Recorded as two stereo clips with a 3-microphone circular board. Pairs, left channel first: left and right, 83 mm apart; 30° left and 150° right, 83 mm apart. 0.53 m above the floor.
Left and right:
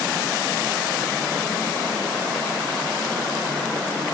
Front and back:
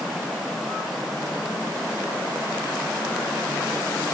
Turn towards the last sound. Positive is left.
No sound to turn to.